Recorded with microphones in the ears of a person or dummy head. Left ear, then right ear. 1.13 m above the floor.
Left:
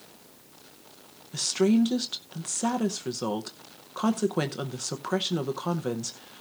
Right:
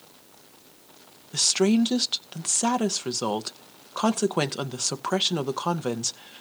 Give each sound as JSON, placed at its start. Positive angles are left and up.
{"t": 1.3, "sound": "a woman speaking", "side_deg": -30, "distance_m": 0.6}